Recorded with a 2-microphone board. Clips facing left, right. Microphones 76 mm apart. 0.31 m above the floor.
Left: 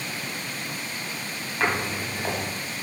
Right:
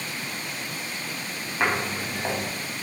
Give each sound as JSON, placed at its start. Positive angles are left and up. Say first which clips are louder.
{"t": 1.6, "sound": "footsteps", "louder": "even", "side_deg": -15, "distance_m": 4.5}